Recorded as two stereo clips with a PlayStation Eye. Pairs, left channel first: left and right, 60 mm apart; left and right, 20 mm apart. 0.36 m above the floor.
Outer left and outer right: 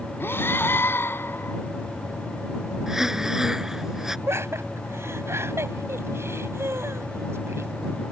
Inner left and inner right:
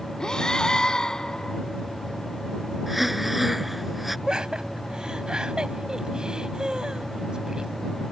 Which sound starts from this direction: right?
Laughter, at 4.3 s.